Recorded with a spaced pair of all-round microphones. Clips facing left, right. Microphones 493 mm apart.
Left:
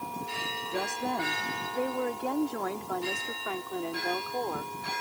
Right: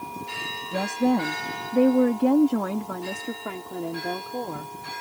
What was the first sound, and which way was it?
A woman speaking, 65° right (ahead or behind).